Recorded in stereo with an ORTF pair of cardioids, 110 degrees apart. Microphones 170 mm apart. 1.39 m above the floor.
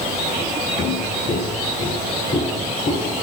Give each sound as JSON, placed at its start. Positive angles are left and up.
{"t": 0.8, "sound": "footsteps", "azimuth_deg": 40, "distance_m": 6.0}